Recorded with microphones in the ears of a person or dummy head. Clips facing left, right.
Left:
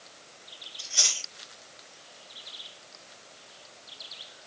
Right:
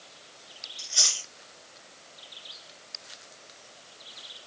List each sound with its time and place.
0.8 s chewing: 5° right (ahead or behind), 1.1 m